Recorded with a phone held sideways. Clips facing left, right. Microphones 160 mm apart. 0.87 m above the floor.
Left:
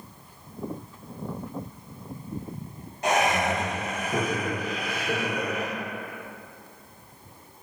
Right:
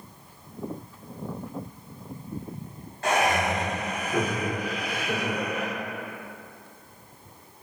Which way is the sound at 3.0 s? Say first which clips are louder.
Even; 15° left (ahead or behind).